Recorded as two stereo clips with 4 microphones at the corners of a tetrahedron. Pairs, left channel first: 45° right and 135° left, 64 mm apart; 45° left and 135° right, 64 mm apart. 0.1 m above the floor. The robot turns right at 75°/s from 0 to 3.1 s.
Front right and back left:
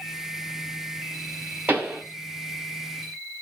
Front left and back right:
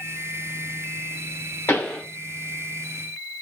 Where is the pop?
85° left, 1.2 m; by 2.0 s 115° left, 1.2 m.